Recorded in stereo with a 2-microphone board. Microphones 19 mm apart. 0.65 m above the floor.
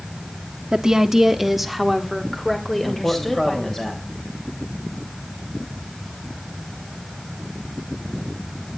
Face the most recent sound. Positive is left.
turn(degrees=25)  # may be behind; listen again after turning